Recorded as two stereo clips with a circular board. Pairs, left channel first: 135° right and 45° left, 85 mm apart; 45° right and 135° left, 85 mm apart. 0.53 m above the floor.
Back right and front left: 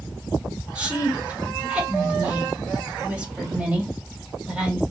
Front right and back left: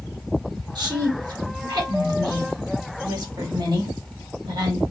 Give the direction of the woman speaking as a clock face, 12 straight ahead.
8 o'clock.